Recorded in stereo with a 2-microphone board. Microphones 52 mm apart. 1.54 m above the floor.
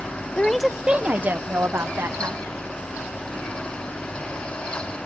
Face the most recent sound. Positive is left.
turn(degrees=-55)  # may be behind; listen again after turning